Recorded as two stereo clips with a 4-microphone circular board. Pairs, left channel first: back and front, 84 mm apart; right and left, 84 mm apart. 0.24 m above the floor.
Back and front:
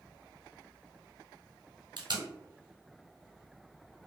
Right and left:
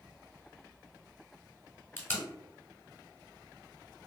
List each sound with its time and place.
2.0 s tape being pulled: 25° right, 0.8 m